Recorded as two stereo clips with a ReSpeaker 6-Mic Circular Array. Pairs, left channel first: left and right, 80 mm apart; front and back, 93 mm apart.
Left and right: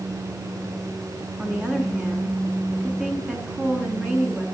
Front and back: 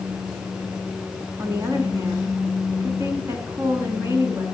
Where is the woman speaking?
155° right, 1.4 m.